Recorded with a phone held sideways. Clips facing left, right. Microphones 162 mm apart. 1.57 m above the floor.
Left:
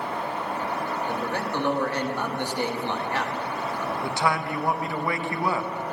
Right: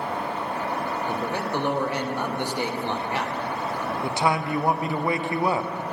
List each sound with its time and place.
0.0 s a fan: 70° right (ahead or behind), 4 m
1.1 s a man speaking: 15° right (ahead or behind), 1.1 m
4.0 s a man speaking: 20° right (ahead or behind), 0.6 m